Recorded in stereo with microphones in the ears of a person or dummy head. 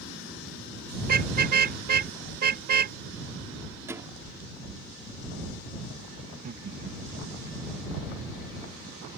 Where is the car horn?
50° right (ahead or behind); by 3.0 s 55° right (ahead or behind).